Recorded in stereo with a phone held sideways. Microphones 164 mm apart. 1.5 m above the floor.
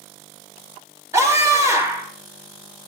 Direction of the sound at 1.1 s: 15° right (ahead or behind).